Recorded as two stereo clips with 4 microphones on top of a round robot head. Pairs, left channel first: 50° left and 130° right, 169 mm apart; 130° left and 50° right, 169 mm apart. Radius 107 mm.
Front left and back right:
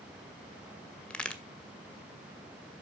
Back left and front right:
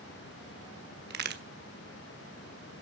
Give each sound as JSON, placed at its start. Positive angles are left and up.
{"t": 1.1, "sound": "a crack", "azimuth_deg": -35, "distance_m": 1.4}